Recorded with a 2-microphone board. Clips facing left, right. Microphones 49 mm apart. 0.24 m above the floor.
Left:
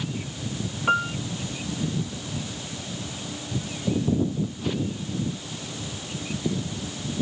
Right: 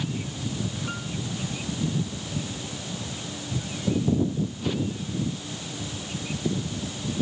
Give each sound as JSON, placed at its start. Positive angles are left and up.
{"t": 0.9, "sound": "a piano", "side_deg": 55}